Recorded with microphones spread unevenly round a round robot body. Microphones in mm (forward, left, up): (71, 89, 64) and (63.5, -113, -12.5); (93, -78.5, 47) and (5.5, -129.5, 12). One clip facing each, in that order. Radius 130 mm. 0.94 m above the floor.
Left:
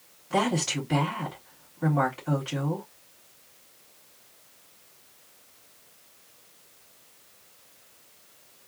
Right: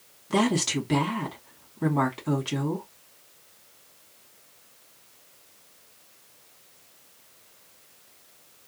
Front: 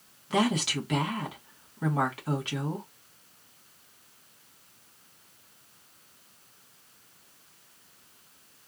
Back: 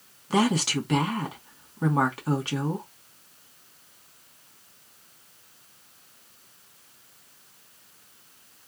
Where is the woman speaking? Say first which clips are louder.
Right 3 dB, back 3 dB; 115° right, 2 m.